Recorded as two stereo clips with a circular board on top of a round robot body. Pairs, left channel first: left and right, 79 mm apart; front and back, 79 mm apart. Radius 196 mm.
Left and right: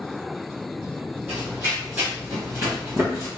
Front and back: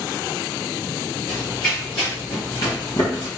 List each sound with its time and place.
1.3 s running footsteps: 25° right, 1.8 m; by 3.3 s 30° right, 0.8 m